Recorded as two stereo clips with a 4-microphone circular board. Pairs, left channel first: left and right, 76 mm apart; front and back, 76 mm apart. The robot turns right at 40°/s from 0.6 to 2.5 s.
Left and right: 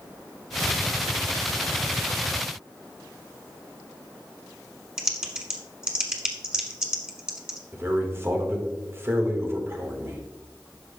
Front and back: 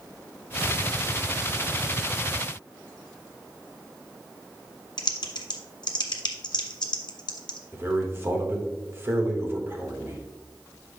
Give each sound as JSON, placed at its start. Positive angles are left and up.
{"t": 5.0, "sound": "typing on a keyboard", "azimuth_deg": -10, "distance_m": 1.2}
{"t": 7.7, "sound": "a man speaking", "azimuth_deg": -135, "distance_m": 1.4}